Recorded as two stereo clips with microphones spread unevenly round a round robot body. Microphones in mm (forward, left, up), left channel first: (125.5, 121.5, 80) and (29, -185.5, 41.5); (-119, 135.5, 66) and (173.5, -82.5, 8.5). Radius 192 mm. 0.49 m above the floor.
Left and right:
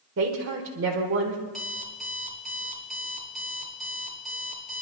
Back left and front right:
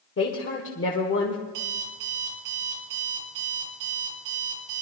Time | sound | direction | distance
0.2 | a woman speaking | 155° right | 1.5 m
1.5 | an alarm clock | 15° right | 4 m